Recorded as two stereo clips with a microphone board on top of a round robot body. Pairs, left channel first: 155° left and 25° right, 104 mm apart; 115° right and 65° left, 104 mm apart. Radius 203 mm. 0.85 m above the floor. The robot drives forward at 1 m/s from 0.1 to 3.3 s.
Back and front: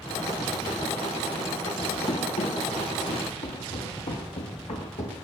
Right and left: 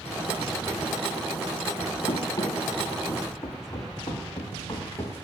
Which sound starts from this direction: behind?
Running footsteps, at 2.1 s.